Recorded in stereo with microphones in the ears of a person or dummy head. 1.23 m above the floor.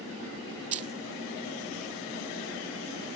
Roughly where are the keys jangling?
Right.